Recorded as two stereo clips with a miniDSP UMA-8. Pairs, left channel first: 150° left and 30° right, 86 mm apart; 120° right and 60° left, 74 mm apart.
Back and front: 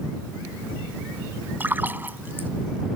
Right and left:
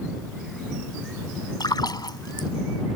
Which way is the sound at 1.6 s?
95° right.